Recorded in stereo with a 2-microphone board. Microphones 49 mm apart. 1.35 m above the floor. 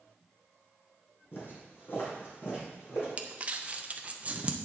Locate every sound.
1.3 s footsteps: 50° left (ahead or behind), 3 m; by 3.1 s 60° left (ahead or behind), 4 m
3.2 s crumpling: 30° right (ahead or behind), 0.6 m